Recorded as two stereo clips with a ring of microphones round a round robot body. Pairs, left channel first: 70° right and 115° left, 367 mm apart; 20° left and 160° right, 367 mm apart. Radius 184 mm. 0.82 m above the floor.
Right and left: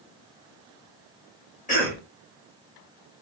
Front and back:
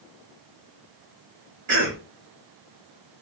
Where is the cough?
125° right, 1.1 m.